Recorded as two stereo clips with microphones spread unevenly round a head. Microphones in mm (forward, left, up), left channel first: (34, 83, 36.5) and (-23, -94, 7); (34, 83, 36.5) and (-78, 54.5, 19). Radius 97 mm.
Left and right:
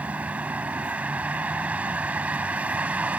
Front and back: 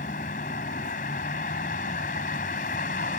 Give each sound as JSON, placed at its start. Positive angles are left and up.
{"t": 0.0, "sound": "a vehicle", "azimuth_deg": -25}